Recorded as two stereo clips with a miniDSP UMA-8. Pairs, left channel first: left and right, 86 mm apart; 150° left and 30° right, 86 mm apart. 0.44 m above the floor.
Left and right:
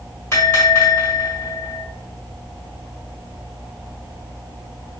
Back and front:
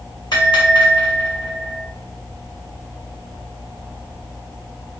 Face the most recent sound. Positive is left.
turn(degrees=140)